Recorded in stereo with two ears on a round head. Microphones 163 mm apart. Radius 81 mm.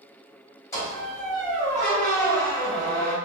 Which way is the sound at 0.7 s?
20° left (ahead or behind).